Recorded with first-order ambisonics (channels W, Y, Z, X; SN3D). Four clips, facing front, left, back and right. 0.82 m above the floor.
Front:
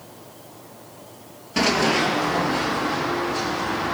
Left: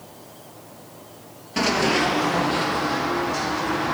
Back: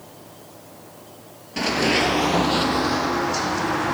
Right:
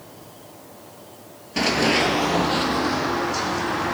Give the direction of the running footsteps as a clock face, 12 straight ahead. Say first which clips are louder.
Right 1 dB, front 1 dB; 12 o'clock.